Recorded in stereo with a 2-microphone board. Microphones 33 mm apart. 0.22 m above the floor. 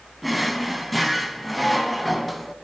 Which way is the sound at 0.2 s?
Centre (ahead or behind).